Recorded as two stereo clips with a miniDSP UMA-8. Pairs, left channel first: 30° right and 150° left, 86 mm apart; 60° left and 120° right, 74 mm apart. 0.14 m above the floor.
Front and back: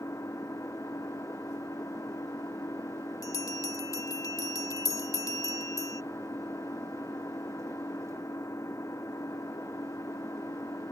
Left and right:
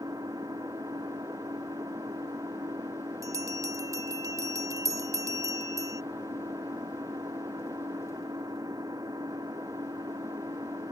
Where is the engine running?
85° right.